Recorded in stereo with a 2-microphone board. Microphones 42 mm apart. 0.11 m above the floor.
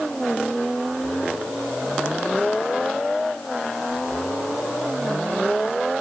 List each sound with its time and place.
Only background noise.